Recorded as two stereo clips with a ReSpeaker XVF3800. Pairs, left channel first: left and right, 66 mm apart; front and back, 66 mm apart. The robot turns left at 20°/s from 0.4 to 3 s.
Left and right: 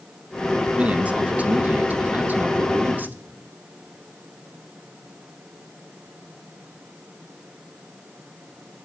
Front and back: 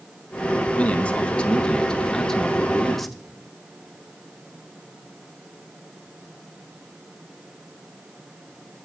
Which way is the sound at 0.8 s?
45° right.